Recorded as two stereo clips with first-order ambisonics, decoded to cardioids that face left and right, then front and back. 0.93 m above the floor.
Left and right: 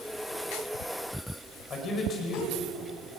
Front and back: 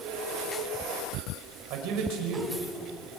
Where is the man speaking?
155° left, 5 m.